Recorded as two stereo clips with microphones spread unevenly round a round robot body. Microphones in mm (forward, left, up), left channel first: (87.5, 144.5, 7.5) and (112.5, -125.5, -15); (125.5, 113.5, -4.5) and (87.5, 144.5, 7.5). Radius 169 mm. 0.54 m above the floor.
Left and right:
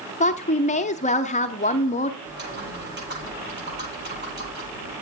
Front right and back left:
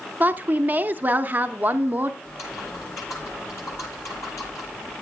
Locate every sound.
0.2 s a woman speaking: 115° left, 0.6 m
2.2 s typing on a keyboard: 35° right, 9 m